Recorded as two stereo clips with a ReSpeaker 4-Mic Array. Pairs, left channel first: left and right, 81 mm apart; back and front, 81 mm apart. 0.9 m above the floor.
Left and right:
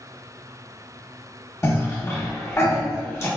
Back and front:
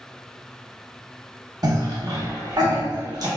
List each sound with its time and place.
1.6 s a cough: 35° left, 1.0 m